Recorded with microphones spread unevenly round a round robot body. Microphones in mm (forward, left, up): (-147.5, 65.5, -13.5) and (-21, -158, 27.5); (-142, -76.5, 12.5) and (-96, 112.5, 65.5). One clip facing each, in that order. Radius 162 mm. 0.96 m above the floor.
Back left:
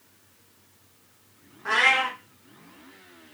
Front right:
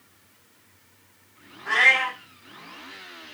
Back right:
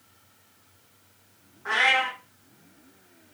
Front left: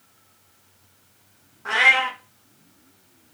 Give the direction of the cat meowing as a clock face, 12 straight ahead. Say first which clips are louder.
Back left 1 dB, front left 2 dB; 9 o'clock.